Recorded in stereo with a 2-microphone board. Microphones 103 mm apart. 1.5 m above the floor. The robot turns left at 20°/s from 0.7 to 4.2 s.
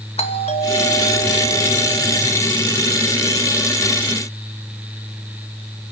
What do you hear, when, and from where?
0.2 s a doorbell: 90° left, 2.5 m; by 2.3 s 55° left, 2.5 m